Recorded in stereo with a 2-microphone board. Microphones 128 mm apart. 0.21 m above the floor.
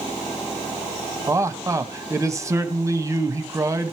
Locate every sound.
1.3 s a man speaking: 25° right (ahead or behind), 1.0 m